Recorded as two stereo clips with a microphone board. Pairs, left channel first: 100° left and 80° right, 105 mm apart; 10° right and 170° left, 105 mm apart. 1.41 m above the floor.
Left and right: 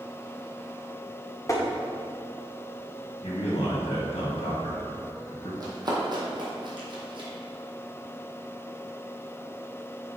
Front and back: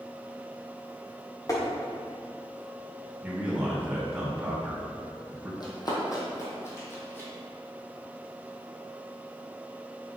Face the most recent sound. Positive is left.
turn(degrees=-80)